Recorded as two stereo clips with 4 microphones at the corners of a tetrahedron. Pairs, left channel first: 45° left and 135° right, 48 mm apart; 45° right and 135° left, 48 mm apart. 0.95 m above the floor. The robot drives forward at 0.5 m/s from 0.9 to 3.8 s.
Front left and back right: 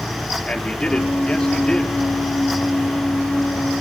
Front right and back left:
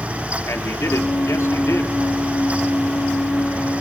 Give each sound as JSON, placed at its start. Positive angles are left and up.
{"t": 0.5, "sound": "a man speaking", "azimuth_deg": -25, "distance_m": 3.0}